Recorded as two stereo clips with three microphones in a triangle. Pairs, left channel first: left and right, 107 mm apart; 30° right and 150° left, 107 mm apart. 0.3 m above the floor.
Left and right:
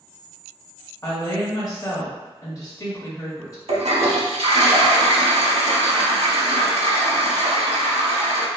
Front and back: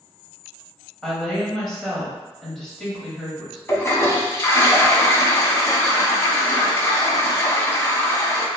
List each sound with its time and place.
1.0 s a woman speaking: 55° left, 1.2 m
3.7 s a toilet flushing: 95° right, 0.7 m